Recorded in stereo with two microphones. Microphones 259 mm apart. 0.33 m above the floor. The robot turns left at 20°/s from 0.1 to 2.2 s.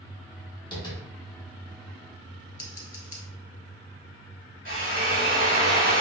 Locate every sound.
0.7 s tapping: 15° left (ahead or behind), 1.0 m
2.6 s scissors: 65° left (ahead or behind), 0.8 m
4.7 s a drill: 30° right (ahead or behind), 1.2 m